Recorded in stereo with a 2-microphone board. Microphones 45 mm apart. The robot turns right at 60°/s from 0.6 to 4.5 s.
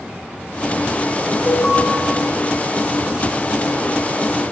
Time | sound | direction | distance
1.5 | an alarm | 35° left (ahead or behind) | 1.4 m